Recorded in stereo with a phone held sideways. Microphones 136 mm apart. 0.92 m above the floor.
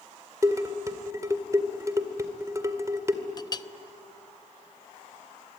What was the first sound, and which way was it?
Dishes clattering, 25° right (ahead or behind).